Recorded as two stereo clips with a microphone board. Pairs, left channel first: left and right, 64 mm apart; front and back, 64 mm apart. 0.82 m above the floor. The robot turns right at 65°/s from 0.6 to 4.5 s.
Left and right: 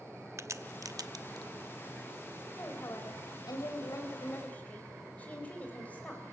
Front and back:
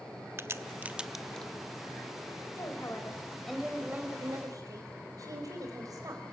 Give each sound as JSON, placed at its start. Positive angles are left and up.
{"t": 0.4, "sound": "a crack", "azimuth_deg": -130, "distance_m": 0.7}
{"t": 2.6, "sound": "a woman speaking", "azimuth_deg": 30, "distance_m": 4.5}